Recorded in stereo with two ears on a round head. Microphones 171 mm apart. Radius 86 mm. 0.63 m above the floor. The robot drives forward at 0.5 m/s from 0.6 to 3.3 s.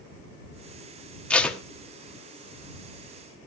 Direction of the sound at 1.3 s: 5° left (ahead or behind).